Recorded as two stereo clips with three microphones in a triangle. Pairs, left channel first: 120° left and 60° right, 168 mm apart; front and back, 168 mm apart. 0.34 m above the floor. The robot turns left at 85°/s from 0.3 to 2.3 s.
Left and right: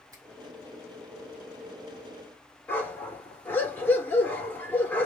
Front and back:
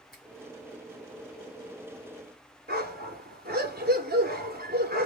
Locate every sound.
0.1 s a finger snap: 5° left, 2 m
2.7 s a dog barking: 160° right, 1.6 m